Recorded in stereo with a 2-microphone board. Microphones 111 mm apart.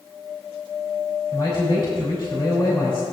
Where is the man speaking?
45° left (ahead or behind), 4.5 m.